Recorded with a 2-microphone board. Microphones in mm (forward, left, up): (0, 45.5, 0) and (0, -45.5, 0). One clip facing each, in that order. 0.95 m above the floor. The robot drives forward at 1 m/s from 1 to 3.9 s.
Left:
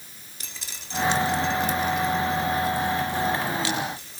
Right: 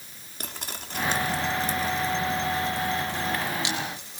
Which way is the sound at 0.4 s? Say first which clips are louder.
Right 7 dB; 55° right (ahead or behind).